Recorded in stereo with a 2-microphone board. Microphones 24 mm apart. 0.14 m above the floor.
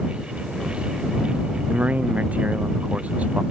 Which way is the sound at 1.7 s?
80° right.